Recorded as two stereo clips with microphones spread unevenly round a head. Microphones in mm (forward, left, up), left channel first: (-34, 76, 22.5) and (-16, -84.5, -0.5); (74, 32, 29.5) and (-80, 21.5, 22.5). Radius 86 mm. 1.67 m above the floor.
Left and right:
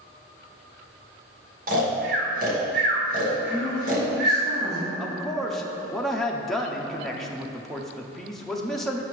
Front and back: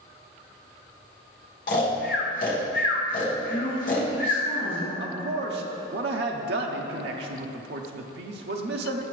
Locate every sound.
1.7 s snoring: 35° right, 1.1 m
3.5 s a man speaking: 25° right, 1.8 m
5.0 s a man speaking: straight behind, 0.6 m